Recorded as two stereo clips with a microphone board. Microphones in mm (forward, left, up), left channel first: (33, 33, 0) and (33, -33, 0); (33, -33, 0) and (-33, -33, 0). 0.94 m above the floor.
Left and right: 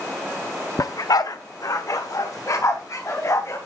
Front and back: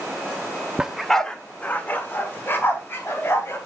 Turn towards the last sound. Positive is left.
turn(degrees=50)